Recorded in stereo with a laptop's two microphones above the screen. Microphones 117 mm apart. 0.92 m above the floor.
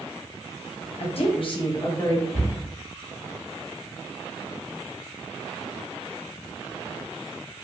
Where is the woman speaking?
55° left (ahead or behind), 0.8 m; by 2.2 s 25° left (ahead or behind), 0.9 m.